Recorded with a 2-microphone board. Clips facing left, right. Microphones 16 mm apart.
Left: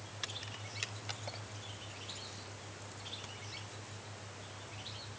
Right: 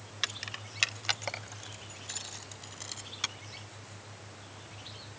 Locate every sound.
0.2 s keys jangling: 40° right (ahead or behind); by 3.4 s 65° right (ahead or behind)